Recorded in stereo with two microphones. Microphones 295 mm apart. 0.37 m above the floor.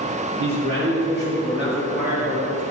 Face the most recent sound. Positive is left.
turn(degrees=35)  # may be behind; listen again after turning